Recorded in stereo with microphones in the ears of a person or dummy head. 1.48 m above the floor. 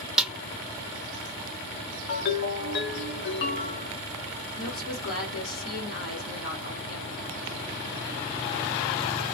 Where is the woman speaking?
75° left (ahead or behind), 1.2 m.